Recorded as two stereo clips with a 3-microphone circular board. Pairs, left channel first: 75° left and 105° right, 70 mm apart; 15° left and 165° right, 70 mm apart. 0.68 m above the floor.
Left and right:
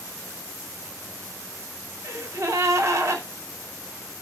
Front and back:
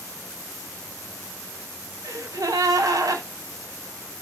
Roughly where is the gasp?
Behind right.